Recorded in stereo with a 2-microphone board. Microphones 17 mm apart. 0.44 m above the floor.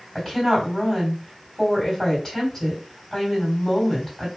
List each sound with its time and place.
0.1 s a woman speaking: 15° left (ahead or behind), 2.5 m